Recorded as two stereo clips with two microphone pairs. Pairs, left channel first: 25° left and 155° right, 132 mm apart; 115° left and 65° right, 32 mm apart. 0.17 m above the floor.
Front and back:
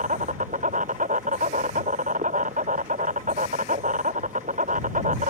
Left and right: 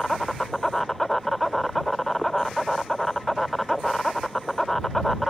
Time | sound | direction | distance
0.0 | an insect | 160° right | ?